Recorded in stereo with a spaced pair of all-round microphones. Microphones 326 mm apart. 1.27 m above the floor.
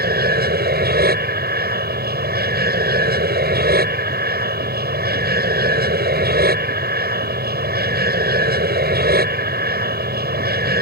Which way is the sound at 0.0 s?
30° right (ahead or behind).